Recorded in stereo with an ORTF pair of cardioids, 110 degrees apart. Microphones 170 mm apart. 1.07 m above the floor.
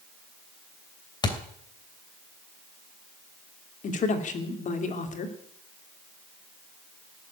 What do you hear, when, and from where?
1.2 s a thud: 25° left, 3 m
3.8 s a man speaking: 45° left, 3 m